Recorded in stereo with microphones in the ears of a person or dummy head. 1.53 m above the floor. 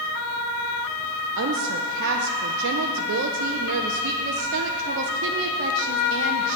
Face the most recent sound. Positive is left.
turn(degrees=-75)  # may be behind; listen again after turning